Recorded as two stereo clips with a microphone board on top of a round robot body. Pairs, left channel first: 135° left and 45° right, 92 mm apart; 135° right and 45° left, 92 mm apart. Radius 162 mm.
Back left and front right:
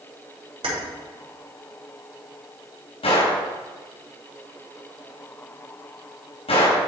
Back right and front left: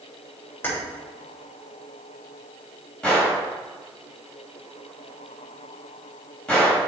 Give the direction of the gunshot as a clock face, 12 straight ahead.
7 o'clock.